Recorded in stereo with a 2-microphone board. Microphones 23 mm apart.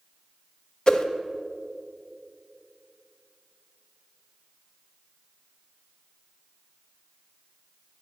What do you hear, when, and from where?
0.9 s a whoosh: 40° left (ahead or behind), 0.6 m